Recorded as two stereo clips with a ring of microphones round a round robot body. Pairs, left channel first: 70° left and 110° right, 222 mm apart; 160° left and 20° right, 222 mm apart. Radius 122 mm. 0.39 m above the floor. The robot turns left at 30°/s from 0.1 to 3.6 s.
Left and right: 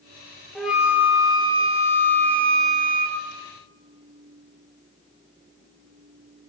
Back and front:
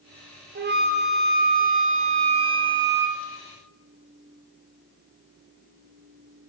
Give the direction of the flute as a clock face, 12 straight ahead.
1 o'clock.